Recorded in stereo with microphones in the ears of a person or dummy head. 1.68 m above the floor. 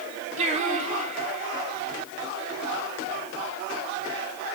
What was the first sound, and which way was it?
Singing, 35° right (ahead or behind).